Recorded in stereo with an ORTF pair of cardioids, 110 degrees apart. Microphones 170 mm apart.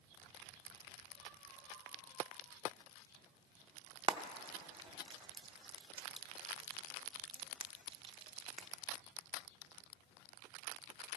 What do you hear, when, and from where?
4.1 s frying: 30° right, 0.5 m